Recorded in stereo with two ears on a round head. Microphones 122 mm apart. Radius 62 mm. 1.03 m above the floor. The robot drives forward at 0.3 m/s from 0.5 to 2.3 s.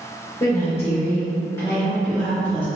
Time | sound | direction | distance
0.4 | a woman speaking | 30° left (ahead or behind) | 1.5 m